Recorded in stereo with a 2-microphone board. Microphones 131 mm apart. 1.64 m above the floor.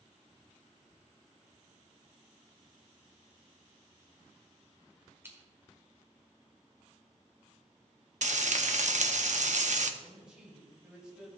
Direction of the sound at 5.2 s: 20° right (ahead or behind).